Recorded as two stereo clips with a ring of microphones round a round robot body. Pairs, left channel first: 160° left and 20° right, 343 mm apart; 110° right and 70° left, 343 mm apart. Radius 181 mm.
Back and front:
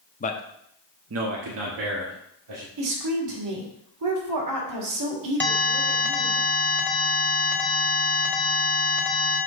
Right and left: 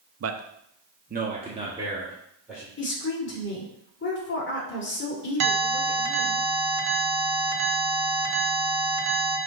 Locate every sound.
0.2 s a man speaking: 100° left, 0.8 m; by 2.7 s 20° right, 2 m
2.8 s a woman speaking: 55° right, 1.9 m
5.4 s an alarm: 70° left, 1.5 m